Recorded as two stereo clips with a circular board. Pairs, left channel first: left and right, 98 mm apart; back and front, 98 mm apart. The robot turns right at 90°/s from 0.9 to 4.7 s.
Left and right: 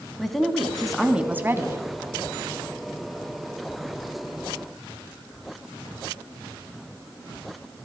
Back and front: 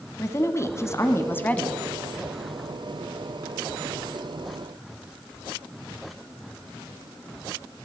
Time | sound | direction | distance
0.2 | a woman speaking | straight behind | 1.2 m